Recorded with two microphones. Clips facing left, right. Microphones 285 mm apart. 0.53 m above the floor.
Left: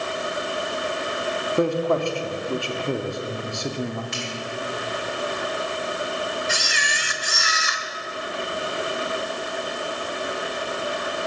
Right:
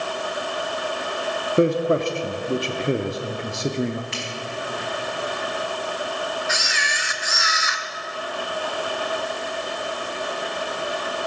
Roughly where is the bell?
I don't hear a bell.